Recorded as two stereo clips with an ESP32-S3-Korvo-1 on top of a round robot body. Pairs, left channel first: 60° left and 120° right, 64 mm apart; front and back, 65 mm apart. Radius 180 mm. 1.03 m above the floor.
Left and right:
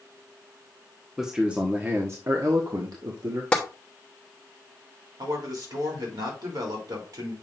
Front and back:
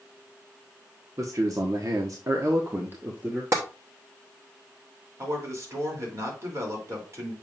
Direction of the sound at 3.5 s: 135° left.